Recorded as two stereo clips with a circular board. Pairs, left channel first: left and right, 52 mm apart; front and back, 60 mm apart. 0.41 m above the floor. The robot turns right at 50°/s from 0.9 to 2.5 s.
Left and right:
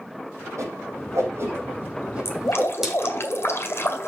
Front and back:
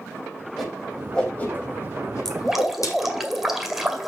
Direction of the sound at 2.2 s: 85° left.